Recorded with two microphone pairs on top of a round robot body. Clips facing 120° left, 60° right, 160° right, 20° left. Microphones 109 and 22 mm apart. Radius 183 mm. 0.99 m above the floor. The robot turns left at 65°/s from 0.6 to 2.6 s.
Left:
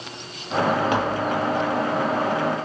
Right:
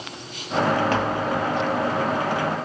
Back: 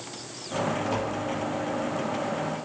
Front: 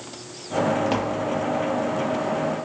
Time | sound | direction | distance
0.9 | tapping | 45° left | 1.9 m